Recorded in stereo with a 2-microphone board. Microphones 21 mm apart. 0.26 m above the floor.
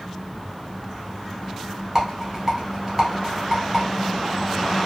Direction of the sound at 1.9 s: 15° right (ahead or behind).